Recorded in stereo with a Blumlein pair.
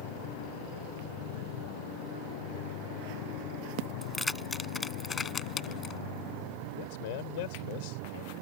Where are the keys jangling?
5° left; by 6.0 s 30° left.